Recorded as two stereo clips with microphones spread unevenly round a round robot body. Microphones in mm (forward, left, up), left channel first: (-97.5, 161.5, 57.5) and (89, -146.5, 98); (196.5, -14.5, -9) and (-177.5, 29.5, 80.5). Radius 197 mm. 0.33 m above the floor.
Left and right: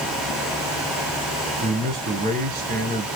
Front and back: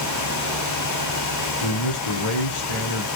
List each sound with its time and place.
1.6 s a man speaking: 10° left, 8 m